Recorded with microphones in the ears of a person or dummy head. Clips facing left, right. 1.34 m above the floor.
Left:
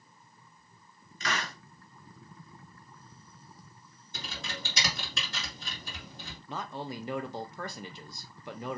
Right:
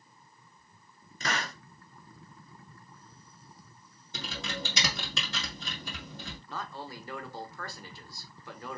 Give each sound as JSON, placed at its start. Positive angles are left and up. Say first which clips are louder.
{"t": 1.2, "sound": "a hiss", "louder": "right 1 dB", "side_deg": -40, "distance_m": 0.9}
{"t": 4.1, "sound": "typing on a keyboard", "louder": "right 4 dB", "side_deg": -65, "distance_m": 1.4}
{"t": 6.5, "sound": "a man speaking", "louder": "left 4 dB", "side_deg": 15, "distance_m": 0.5}